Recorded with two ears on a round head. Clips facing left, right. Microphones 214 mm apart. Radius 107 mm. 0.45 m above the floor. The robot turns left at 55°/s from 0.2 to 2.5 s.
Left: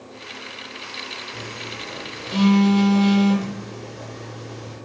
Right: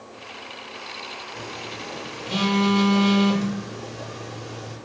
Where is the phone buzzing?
20° left (ahead or behind), 0.9 m; by 4.8 s 5° right (ahead or behind), 0.9 m.